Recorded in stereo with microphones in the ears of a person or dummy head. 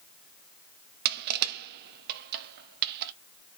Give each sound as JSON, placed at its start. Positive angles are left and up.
{"t": 1.1, "sound": "crushing", "side_deg": -60, "distance_m": 0.6}